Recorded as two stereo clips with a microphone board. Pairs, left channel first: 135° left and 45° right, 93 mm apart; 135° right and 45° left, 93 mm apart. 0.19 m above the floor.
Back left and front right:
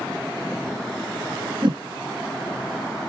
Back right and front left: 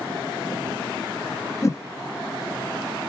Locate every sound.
1.6 s a whoosh: 80° right, 0.8 m